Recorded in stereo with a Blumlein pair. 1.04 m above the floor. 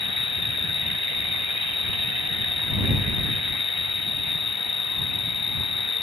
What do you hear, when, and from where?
0.0 s an insect: 15° left